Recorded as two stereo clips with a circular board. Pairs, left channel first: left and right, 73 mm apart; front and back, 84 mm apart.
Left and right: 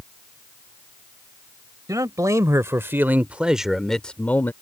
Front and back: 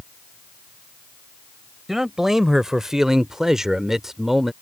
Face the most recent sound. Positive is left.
turn(degrees=100)